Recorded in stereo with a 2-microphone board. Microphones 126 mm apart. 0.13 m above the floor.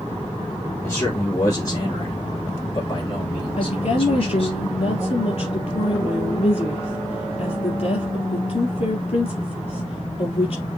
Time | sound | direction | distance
0.8 | a man speaking | 20° left (ahead or behind) | 3.5 m
3.6 | a woman speaking | 50° left (ahead or behind) | 3 m